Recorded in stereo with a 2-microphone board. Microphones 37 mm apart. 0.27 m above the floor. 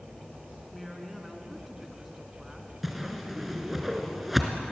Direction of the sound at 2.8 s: 5° right (ahead or behind).